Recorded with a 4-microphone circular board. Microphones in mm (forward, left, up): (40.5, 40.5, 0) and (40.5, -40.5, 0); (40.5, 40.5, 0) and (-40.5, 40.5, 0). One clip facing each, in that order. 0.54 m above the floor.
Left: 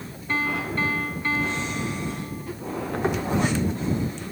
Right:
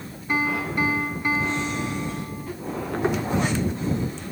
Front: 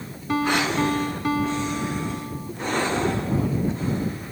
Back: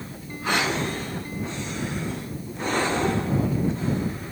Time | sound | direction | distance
0.3 | a piano | 15° right | ?